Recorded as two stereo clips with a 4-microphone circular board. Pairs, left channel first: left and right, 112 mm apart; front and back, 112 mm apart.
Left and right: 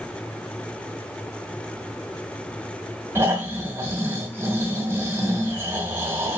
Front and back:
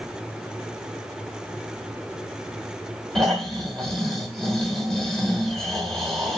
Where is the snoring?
80° right, 1.1 m.